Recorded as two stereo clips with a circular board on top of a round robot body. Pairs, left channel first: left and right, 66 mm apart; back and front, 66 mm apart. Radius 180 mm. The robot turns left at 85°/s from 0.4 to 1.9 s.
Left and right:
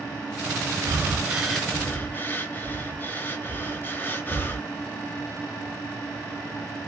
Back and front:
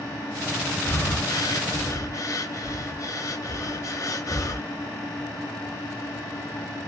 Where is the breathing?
120° right, 1.3 m; by 4.7 s 150° left, 1.3 m.